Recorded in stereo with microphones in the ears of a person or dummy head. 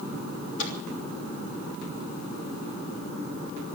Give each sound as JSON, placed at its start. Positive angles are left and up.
{"t": 0.6, "sound": "a microwave", "side_deg": 75, "distance_m": 3.0}